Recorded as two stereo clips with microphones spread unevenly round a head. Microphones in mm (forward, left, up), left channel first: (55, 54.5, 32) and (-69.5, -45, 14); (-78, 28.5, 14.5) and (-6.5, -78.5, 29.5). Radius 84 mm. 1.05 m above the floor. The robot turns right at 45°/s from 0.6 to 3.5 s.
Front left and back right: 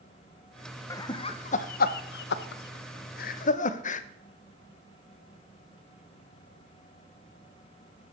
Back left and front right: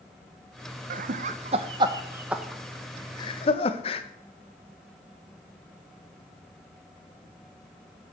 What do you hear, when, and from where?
0.9 s laughter: 35° right, 0.6 m; by 4.0 s 80° left, 0.6 m